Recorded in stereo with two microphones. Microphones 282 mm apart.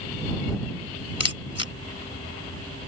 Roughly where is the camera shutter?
Left.